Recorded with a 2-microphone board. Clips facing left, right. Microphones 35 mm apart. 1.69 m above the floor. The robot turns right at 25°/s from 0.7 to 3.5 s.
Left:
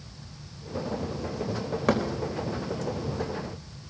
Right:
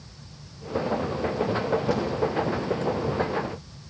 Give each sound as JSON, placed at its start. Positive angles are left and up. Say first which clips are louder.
{"t": 1.9, "sound": "a thud", "louder": "left 5 dB", "side_deg": 75, "distance_m": 4.0}